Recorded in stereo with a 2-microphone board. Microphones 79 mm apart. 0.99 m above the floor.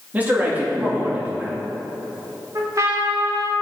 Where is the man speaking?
20° right (ahead or behind), 2 m.